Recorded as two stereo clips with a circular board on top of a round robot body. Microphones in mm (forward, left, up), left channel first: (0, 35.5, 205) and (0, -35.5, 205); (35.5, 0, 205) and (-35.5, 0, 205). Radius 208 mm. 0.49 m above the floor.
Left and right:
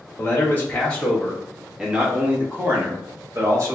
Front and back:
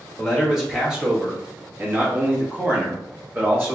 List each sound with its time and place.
0.2 s a man speaking: 90° left, 1.4 m; by 3.8 s 125° right, 1.9 m